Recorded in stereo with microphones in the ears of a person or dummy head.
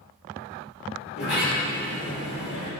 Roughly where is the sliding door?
Left.